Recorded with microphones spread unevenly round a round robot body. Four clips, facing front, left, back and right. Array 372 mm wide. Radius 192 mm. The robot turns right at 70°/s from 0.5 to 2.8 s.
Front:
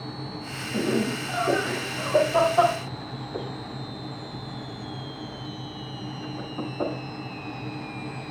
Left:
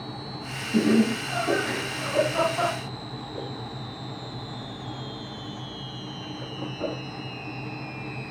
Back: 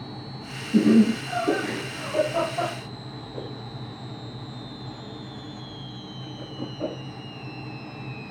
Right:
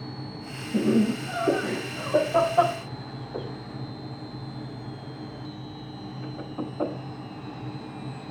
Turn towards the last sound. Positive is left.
turn(degrees=-35)